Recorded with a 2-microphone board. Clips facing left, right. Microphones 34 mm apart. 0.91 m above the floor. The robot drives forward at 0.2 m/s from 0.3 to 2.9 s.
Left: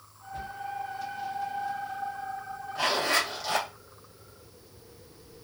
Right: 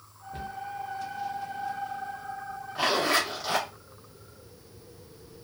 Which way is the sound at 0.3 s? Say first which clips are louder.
Even; 45° right (ahead or behind).